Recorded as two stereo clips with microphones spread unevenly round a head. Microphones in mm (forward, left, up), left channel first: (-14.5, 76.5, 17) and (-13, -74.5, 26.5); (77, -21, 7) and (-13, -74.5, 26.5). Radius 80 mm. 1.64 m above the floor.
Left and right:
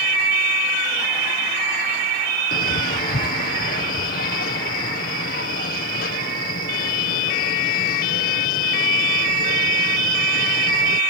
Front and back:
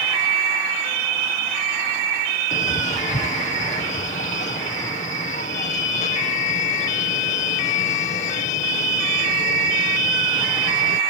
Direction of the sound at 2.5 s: 55° left.